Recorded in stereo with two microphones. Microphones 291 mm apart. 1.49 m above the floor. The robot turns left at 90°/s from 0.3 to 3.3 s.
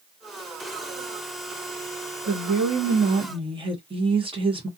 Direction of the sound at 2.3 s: 70° right.